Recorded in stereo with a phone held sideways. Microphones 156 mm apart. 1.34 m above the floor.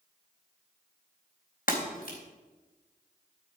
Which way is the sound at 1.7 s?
65° left (ahead or behind).